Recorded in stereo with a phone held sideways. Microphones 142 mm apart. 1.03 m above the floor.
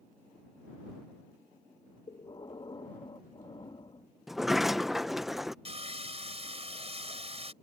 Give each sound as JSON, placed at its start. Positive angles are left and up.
{"t": 2.1, "sound": "breathing", "side_deg": 35}
{"t": 4.3, "sound": "a sliding door", "side_deg": 0}
{"t": 5.7, "sound": "sawing", "side_deg": -45}